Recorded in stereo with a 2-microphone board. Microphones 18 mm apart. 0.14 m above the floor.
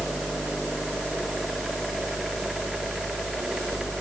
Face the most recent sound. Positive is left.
No sound to turn to.